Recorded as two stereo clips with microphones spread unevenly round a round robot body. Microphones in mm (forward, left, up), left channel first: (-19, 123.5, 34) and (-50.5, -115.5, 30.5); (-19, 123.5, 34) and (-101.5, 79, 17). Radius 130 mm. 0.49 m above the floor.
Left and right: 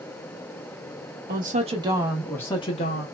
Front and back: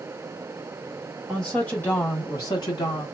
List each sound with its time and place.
1.3 s a woman speaking: 65° right, 0.9 m; by 3.0 s 55° left, 0.9 m